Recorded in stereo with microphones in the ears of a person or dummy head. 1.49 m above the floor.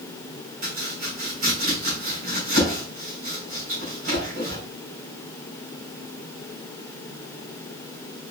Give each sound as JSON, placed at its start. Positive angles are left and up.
{"t": 0.6, "sound": "chopping", "side_deg": -40, "distance_m": 2.5}